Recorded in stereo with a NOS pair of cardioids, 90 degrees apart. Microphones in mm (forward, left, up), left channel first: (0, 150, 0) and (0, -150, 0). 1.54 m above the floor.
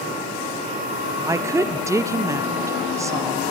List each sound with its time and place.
1.2 s a woman speaking: 10° right, 0.6 m